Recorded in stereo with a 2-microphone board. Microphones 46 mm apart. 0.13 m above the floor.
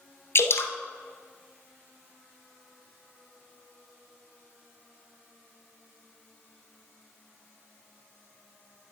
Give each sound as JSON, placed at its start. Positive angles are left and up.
{"t": 0.3, "sound": "dripping", "side_deg": 60, "distance_m": 0.9}